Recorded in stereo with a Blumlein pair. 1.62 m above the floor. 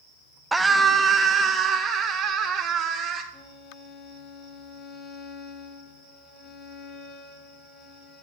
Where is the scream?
5° right, 0.9 m; by 3.2 s 30° right, 2.5 m.